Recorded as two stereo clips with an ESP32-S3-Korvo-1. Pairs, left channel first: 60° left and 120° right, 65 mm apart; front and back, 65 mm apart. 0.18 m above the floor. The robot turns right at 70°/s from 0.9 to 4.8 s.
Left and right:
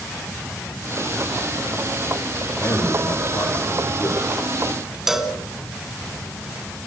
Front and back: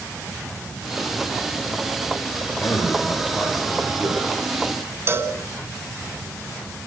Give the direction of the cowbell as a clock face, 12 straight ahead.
7 o'clock.